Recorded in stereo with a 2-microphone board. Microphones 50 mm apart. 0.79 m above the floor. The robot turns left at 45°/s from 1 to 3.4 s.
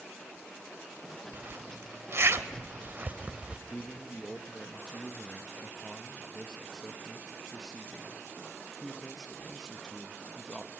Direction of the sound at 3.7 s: 15° left (ahead or behind).